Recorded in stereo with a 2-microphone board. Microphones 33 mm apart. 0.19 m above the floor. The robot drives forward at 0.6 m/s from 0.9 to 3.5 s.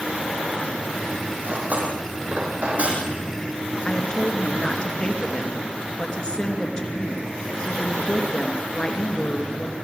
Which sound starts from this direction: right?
Cutlery clinking, at 1.4 s.